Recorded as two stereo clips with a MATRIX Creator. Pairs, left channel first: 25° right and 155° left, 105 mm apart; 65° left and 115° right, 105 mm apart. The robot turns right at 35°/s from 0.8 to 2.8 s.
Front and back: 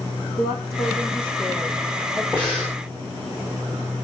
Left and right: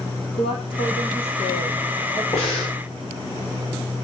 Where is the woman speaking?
30° left, 6 m; by 2.2 s 80° left, 6 m.